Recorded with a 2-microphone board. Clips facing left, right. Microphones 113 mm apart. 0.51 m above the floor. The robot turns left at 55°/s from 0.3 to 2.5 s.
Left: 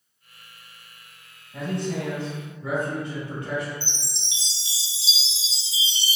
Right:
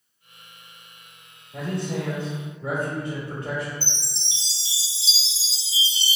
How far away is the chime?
About 0.7 m.